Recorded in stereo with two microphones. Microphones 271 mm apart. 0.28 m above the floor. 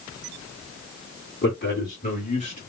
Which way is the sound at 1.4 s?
40° left (ahead or behind).